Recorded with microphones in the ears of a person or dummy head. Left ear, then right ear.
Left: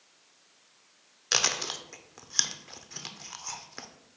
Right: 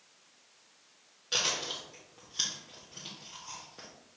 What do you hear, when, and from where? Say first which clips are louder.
1.3 s chewing: left 4 dB; 65° left (ahead or behind), 0.6 m